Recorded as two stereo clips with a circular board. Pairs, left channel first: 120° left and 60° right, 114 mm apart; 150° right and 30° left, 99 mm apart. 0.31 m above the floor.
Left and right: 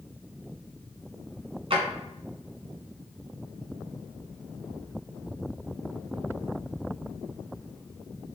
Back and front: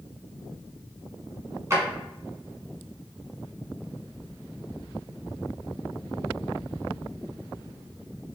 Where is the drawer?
30° right, 1.3 m.